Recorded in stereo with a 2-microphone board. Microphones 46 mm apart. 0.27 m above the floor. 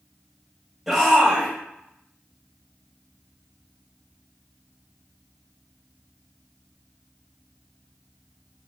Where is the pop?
I don't hear a pop.